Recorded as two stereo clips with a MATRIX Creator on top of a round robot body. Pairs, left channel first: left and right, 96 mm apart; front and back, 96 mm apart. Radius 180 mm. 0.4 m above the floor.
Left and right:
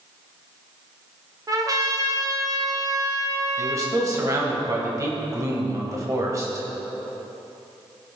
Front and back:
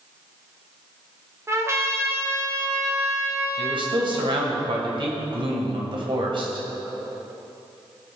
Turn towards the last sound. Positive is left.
turn(degrees=-145)